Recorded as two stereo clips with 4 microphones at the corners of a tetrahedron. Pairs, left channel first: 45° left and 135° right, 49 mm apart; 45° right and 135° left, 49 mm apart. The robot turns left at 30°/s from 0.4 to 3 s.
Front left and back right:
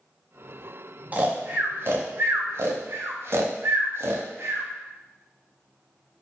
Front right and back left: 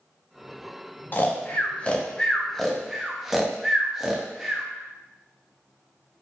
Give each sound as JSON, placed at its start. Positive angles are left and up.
{"t": 1.1, "sound": "snoring", "azimuth_deg": -85, "distance_m": 0.5}